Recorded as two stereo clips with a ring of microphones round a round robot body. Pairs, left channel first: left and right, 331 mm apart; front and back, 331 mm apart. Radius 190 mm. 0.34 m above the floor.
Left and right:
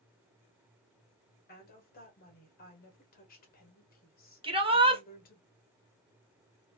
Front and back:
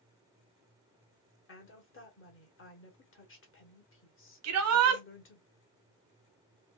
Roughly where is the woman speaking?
Ahead left.